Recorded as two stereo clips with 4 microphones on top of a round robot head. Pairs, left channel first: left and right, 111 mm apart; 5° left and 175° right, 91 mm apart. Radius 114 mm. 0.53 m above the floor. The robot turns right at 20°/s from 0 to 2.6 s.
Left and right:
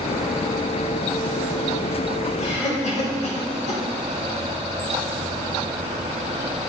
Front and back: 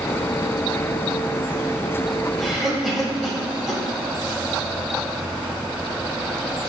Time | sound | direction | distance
2.4 | a cough | 95° left | 3.5 m